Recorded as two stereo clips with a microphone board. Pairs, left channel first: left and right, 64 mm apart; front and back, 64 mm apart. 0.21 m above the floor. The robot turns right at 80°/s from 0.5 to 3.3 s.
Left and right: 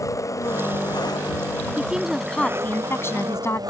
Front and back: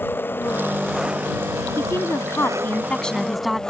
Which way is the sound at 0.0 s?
55° left.